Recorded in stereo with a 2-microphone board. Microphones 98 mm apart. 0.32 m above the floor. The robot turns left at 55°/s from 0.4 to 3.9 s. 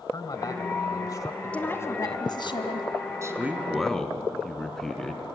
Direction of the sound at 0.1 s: 105° left.